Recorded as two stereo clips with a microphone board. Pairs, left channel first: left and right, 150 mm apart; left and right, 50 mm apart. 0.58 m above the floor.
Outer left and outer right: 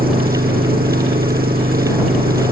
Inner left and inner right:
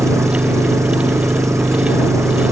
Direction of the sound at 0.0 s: 85° right.